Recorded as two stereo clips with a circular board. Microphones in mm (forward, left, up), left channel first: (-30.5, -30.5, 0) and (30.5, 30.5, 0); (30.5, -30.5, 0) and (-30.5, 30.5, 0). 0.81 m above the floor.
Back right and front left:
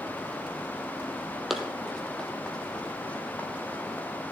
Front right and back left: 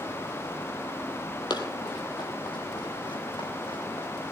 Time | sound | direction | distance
1.5 | running footsteps | 40° right | 1.3 m